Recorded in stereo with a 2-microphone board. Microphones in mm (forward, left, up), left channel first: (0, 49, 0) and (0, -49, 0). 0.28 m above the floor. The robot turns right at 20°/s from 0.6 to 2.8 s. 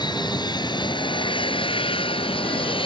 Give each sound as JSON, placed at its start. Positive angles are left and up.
{"t": 0.0, "sound": "an aircraft", "azimuth_deg": 55}